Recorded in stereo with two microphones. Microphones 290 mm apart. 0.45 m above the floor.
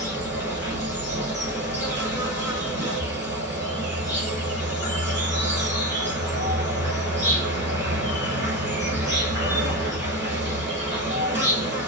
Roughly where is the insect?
Right.